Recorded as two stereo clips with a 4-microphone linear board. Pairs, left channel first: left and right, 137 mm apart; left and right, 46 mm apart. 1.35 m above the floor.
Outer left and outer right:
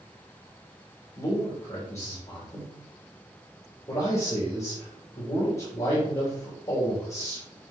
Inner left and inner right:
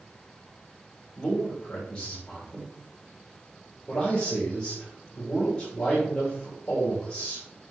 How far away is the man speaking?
About 2.5 m.